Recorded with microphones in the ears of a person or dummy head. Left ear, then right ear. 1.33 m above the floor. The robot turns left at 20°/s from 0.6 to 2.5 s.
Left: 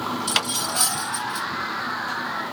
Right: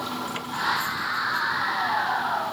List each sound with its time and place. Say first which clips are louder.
0.3 s cutlery clinking: left 2 dB; 55° left (ahead or behind); by 1.5 s 50° left (ahead or behind)